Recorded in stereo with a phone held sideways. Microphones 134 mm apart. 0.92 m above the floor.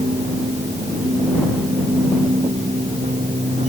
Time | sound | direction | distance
0.0 | a machine running | 55° right (ahead or behind) | ?